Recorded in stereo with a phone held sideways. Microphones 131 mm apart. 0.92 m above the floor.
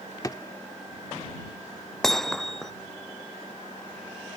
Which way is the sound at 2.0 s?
5° left (ahead or behind).